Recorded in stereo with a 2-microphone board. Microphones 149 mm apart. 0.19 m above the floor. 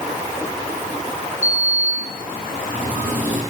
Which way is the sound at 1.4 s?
60° left (ahead or behind).